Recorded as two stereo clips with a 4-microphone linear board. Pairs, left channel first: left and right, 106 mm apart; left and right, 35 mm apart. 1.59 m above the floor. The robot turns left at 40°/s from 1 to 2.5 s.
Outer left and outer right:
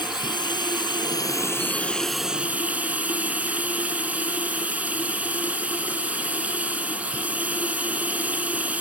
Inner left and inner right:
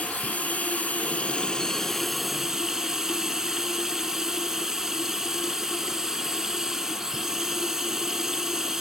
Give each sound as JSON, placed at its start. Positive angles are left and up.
{"t": 0.0, "sound": "running water", "azimuth_deg": 45}